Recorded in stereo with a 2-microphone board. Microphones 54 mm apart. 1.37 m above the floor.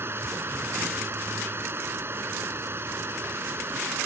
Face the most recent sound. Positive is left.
turn(degrees=-45)  # may be behind; listen again after turning